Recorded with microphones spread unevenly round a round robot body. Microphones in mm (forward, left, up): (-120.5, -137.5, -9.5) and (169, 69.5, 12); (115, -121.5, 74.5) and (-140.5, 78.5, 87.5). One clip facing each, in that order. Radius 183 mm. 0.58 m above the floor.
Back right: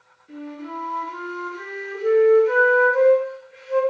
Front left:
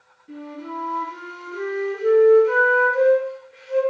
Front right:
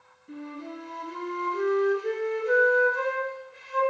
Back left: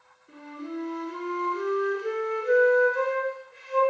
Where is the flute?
5° right, 4.5 m.